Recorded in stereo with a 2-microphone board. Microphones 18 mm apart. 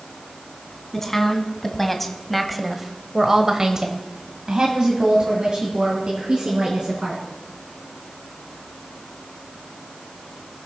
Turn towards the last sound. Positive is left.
turn(degrees=-40)  # may be behind; listen again after turning